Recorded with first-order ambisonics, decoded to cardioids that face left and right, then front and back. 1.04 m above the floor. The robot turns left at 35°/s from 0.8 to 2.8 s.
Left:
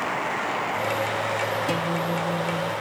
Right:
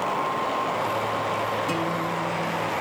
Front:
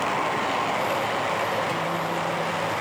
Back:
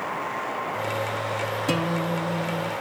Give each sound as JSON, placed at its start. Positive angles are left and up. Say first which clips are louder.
{"t": 1.7, "sound": "a guitar", "louder": "left 1 dB, even", "azimuth_deg": 160, "distance_m": 1.4}